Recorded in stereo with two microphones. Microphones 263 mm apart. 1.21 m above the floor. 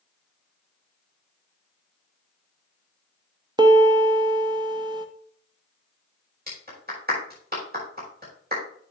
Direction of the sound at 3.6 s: 15° right (ahead or behind).